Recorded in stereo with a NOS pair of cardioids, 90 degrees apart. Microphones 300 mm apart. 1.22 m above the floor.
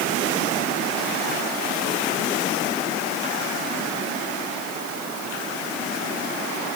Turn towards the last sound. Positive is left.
No sound to turn to.